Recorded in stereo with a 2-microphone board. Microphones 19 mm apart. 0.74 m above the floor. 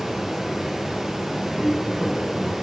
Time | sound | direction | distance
0.0 | running water | 35° right (ahead or behind) | 5.5 m
1.6 | footsteps | 15° right (ahead or behind) | 6 m